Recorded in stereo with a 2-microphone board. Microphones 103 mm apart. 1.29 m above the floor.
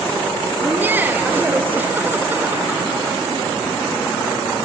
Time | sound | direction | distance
0.6 | laughter | 20° right (ahead or behind) | 1.5 m